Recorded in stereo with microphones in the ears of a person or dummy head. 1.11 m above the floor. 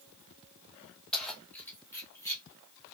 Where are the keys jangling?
5° left (ahead or behind), 1.9 m; by 2.4 s 20° left (ahead or behind), 3 m.